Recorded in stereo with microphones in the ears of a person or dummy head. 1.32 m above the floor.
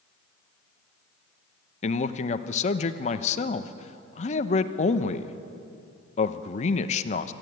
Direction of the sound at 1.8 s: 35° left (ahead or behind).